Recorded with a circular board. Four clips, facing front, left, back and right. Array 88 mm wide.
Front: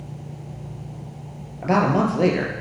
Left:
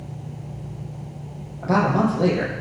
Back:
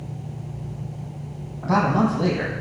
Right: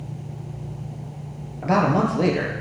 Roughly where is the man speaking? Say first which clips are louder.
Even, front 1 dB; ahead right.